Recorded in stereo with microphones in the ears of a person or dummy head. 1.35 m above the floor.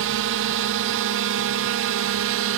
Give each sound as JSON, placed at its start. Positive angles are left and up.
{"t": 0.0, "sound": "a drone", "side_deg": -55}